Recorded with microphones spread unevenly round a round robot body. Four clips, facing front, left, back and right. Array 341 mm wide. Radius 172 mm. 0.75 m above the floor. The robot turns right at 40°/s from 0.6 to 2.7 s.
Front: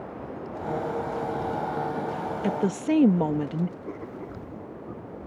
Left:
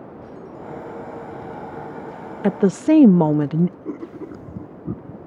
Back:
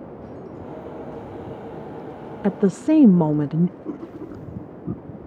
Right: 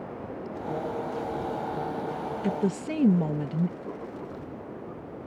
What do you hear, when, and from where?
2.4 s a woman speaking: 100° left; by 3.8 s 110° left
3.9 s writing: 135° left